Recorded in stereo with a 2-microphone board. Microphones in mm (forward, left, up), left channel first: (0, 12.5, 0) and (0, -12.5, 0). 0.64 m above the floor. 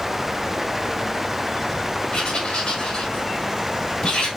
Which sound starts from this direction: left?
Writing, at 2.1 s.